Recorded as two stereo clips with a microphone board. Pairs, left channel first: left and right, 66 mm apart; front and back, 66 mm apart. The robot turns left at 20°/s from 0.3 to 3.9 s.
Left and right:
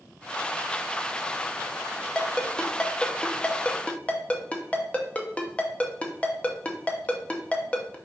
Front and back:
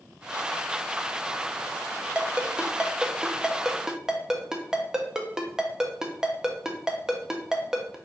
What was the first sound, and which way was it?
A ringtone, 145° left.